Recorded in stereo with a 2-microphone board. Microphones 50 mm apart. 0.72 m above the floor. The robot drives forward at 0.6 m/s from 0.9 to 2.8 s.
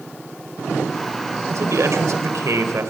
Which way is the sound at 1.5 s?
75° right (ahead or behind).